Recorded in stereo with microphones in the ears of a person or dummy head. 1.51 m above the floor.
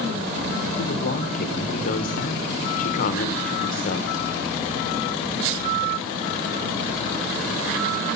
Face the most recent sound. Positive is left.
turn(degrees=50)  # may be behind; listen again after turning